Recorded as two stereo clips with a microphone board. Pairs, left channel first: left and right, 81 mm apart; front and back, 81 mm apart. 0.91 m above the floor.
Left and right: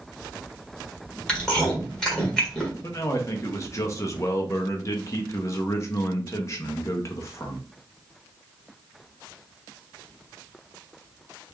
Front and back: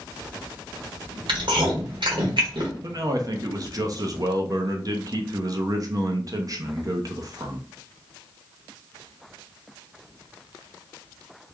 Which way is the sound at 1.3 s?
170° left.